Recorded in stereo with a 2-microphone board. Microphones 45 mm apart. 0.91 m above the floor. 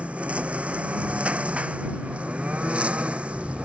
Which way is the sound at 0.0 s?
25° right (ahead or behind).